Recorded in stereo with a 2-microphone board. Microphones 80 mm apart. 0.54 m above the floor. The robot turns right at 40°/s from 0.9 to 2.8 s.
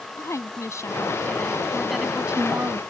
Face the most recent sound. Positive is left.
turn(degrees=-145)